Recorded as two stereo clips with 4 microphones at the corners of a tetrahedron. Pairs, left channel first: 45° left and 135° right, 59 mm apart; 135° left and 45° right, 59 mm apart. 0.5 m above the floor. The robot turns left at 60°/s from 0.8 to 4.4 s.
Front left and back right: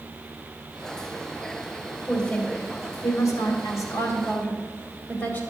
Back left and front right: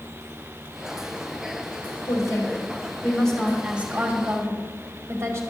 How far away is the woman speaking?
About 2 m.